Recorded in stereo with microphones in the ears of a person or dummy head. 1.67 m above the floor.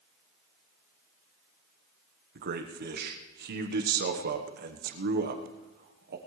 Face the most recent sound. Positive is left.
turn(degrees=-60)  # may be behind; listen again after turning